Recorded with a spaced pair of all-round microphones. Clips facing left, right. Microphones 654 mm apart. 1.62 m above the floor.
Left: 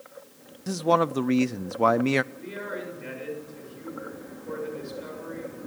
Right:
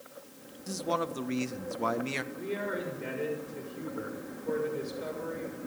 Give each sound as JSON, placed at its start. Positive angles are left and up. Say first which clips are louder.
{"t": 0.7, "sound": "a man speaking", "louder": "left 9 dB", "side_deg": 80, "distance_m": 0.7}
{"t": 2.3, "sound": "a man speaking", "louder": "right 2 dB", "side_deg": -70, "distance_m": 7.0}